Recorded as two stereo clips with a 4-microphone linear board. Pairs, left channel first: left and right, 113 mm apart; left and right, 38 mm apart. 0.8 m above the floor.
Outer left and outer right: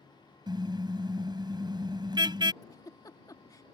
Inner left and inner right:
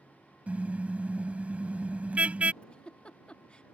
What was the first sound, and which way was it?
A car horn, 40° right (ahead or behind).